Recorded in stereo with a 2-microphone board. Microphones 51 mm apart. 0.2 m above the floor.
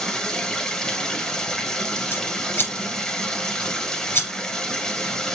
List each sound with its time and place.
0.0 s running water: 15° left (ahead or behind), 1.3 m
2.1 s scissors: 45° left (ahead or behind), 2.5 m